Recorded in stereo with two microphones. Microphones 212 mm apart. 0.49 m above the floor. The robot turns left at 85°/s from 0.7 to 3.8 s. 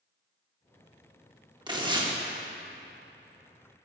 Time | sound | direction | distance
1.7 | tearing paper | 20° right (ahead or behind) | 0.8 m